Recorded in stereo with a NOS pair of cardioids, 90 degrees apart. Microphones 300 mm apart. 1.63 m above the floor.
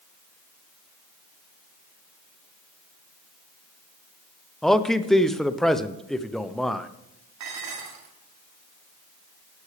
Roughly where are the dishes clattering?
Right.